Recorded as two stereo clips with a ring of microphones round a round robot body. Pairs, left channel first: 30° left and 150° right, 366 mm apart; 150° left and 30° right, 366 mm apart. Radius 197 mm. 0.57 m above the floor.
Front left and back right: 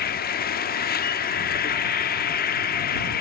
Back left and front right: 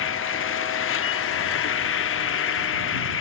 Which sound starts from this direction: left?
An insect, at 0.0 s.